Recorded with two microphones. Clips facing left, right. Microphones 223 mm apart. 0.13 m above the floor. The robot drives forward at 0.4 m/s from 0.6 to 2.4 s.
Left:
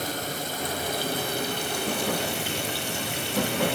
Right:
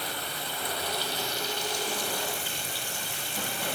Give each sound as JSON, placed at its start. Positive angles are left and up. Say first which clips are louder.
{"t": 0.0, "sound": "running water", "louder": "left 6 dB", "side_deg": 45, "distance_m": 1.3}